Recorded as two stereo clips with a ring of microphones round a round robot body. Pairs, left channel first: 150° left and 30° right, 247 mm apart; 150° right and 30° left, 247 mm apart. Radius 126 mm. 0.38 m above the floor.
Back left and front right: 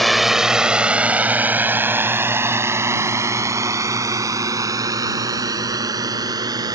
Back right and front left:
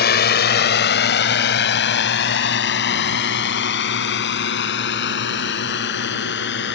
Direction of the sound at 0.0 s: 120° right.